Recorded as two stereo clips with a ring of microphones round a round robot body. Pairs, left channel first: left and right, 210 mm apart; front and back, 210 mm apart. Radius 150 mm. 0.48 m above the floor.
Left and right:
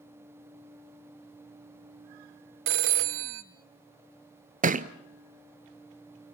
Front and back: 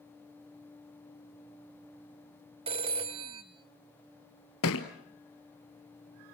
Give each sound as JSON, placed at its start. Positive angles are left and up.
{"t": 2.7, "sound": "a phone ringing", "azimuth_deg": -115, "distance_m": 0.9}
{"t": 4.6, "sound": "a thud", "azimuth_deg": -35, "distance_m": 1.1}